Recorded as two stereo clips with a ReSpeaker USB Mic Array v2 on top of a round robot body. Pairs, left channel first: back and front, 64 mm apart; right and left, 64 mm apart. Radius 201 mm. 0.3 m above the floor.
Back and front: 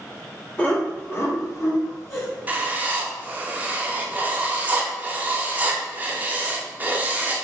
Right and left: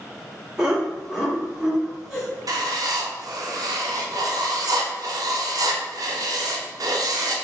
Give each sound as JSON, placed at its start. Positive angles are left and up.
{"t": 0.6, "sound": "laughter", "azimuth_deg": 160, "distance_m": 1.4}
{"t": 2.5, "sound": "writing", "azimuth_deg": 65, "distance_m": 0.5}